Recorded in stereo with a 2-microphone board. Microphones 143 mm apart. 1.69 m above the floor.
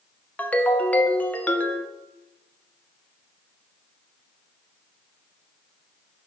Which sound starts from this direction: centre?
A ringtone, at 0.4 s.